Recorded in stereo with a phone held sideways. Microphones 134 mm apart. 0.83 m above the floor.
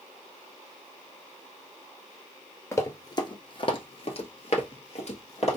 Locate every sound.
2.7 s running footsteps: 20° left (ahead or behind), 1.0 m; by 5.6 s 50° left (ahead or behind), 1.6 m